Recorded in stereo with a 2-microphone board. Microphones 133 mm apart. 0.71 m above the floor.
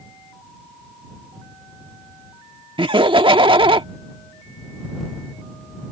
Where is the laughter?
45° right (ahead or behind).